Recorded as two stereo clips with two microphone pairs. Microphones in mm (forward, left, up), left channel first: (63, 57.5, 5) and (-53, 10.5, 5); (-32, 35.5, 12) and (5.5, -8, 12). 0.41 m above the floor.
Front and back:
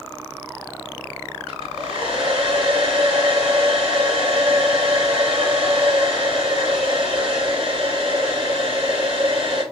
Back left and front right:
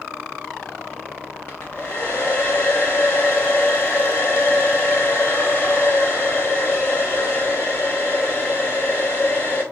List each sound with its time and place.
1.5 s a hair dryer: 175° left, 2.5 m